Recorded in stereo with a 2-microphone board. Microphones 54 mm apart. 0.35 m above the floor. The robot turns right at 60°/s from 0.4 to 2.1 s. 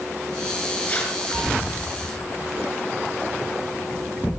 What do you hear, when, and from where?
0.9 s tearing paper: 25° left (ahead or behind), 3 m; by 1.2 s 10° left (ahead or behind), 3 m